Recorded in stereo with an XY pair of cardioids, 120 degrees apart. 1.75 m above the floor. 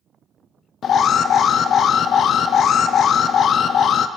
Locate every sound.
0.8 s an alarm: 50° left, 0.8 m